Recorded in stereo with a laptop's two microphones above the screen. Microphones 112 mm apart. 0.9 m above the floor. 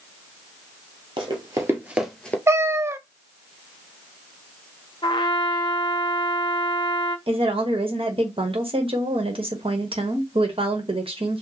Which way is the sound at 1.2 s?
45° right (ahead or behind).